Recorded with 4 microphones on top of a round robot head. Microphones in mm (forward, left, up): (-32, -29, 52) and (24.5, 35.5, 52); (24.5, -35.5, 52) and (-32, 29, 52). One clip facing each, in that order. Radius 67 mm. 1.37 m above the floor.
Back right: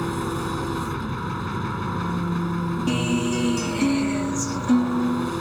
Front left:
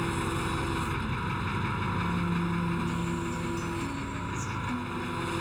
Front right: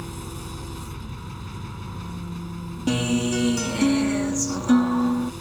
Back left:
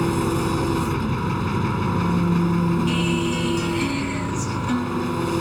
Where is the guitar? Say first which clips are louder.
Back right 9 dB, back left 1 dB; 110° right.